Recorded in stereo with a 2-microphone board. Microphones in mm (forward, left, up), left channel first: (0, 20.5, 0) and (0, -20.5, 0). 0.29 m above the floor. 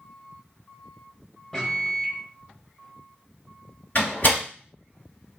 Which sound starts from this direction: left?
A door slam, at 4.0 s.